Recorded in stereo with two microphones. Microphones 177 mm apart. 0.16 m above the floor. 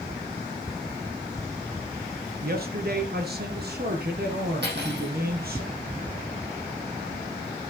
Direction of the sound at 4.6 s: 75° right (ahead or behind).